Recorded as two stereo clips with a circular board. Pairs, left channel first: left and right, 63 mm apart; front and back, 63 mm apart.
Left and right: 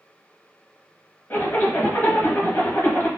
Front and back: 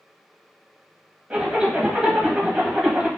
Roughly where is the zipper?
Behind left.